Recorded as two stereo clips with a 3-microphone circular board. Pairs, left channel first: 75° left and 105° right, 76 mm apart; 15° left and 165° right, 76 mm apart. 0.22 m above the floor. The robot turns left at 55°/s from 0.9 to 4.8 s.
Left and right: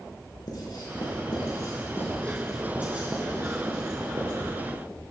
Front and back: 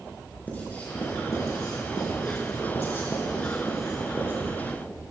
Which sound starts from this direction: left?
Writing, at 0.5 s.